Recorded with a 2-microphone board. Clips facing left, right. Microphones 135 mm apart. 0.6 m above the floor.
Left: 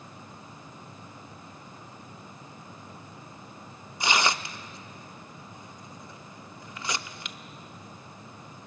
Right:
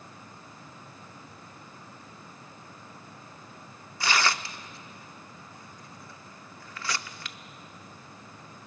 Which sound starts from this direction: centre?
Tearing paper, at 4.0 s.